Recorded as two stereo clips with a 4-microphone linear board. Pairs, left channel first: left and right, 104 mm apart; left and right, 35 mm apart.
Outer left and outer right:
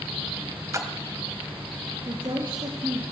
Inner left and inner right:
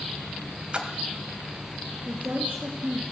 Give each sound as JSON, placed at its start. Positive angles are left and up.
{"t": 0.7, "sound": "a splash", "side_deg": -30, "distance_m": 2.0}
{"t": 2.0, "sound": "a woman speaking", "side_deg": -55, "distance_m": 3.0}